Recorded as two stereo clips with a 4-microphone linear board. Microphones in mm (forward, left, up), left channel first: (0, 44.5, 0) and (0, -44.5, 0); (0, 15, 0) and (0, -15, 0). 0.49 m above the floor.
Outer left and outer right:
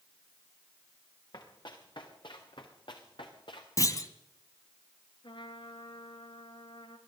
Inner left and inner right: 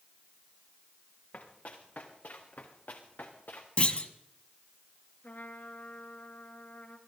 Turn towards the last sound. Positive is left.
turn(degrees=85)